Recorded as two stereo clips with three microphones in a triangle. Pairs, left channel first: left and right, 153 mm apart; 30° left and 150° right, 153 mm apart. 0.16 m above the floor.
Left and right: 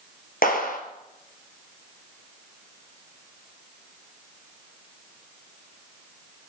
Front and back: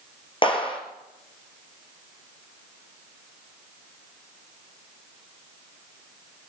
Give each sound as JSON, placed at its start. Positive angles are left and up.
{"t": 0.4, "sound": "a clap", "azimuth_deg": 85, "distance_m": 3.5}